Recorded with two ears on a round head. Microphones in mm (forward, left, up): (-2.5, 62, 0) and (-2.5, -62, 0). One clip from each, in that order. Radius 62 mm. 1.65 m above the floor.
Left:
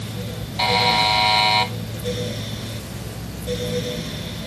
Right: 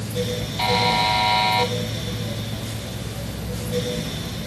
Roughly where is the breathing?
No breathing in this recording.